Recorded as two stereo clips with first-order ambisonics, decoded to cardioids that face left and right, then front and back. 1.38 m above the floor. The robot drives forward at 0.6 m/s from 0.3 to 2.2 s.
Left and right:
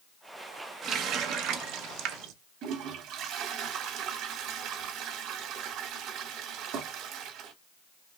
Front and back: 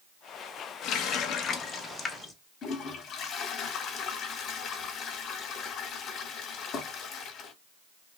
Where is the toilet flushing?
65° right, 2.0 m.